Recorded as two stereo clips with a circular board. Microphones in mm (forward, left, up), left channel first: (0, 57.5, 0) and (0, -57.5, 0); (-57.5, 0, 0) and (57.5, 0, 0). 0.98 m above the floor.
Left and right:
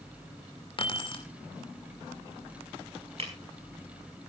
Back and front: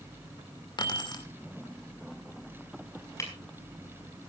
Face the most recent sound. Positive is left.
turn(degrees=-120)